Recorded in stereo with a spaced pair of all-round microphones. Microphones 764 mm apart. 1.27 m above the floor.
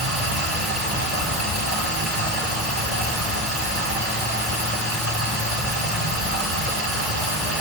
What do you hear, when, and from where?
0.0 s running water: 15° right (ahead or behind), 2.5 m